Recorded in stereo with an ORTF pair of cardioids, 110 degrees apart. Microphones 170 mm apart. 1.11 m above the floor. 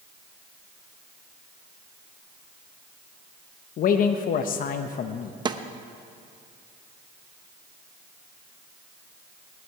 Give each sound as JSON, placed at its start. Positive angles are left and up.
{"t": 3.8, "sound": "a man speaking", "azimuth_deg": 55, "distance_m": 0.9}
{"t": 5.5, "sound": "a snare drum", "azimuth_deg": -25, "distance_m": 0.9}